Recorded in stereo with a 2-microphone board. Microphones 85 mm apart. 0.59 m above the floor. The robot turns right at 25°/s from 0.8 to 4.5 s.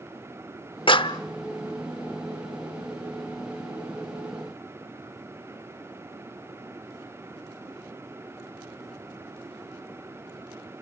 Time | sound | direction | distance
0.9 | a clap | 65° left (ahead or behind) | 0.9 m